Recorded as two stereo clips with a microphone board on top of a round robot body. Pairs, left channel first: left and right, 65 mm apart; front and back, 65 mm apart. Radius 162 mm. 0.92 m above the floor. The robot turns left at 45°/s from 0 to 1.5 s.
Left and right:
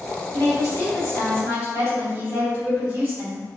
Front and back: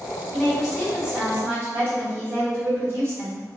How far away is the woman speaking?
About 1.9 m.